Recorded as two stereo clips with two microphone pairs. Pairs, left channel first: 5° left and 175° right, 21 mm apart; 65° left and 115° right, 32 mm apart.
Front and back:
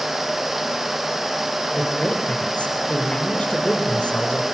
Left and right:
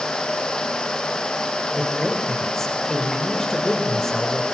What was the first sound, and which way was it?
A man speaking, 10° right.